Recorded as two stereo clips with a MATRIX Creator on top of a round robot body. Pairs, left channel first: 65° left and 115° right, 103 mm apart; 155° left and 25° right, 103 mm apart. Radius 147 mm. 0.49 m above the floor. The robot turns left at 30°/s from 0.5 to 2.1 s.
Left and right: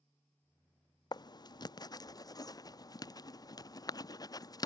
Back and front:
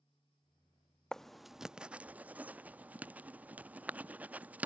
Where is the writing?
75° left; by 4.7 s 45° left.